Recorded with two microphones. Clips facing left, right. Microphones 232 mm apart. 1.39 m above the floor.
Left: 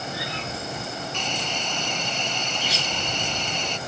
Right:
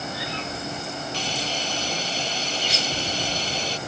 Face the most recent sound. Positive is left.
turn(degrees=-35)  # may be behind; listen again after turning